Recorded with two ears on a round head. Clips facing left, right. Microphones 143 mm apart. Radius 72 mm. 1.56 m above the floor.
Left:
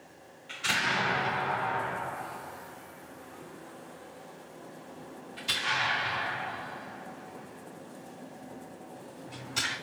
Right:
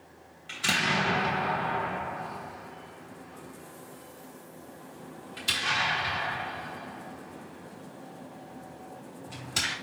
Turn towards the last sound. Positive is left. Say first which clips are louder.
# right 3 dB
turn(degrees=-60)  # may be behind; listen again after turning